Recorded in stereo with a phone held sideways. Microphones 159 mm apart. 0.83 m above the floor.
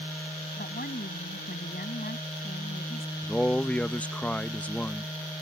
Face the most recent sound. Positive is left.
turn(degrees=10)  # may be behind; listen again after turning